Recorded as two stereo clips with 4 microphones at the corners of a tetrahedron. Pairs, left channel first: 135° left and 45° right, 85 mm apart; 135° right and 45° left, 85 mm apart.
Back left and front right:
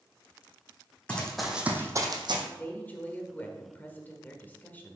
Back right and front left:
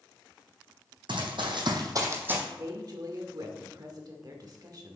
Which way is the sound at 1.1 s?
60° left.